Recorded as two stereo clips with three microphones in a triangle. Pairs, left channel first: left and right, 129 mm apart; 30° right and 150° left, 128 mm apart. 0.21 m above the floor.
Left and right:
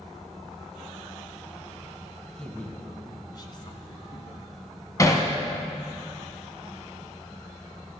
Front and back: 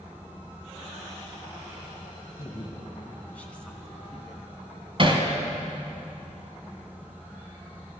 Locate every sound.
2.3 s a woman speaking: straight ahead, 1.7 m; by 4.5 s 65° left, 2.5 m
5.0 s hammering: 140° left, 1.5 m